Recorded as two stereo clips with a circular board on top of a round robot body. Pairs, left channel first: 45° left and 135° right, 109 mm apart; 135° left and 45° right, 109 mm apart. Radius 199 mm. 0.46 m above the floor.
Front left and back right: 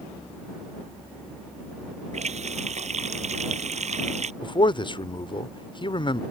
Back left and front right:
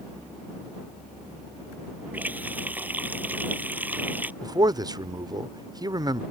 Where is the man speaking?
5° left.